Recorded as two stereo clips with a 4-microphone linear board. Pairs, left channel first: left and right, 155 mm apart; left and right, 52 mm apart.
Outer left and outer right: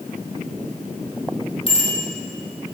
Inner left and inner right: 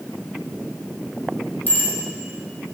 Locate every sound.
1.7 s a bicycle bell: 40° left (ahead or behind), 4.5 m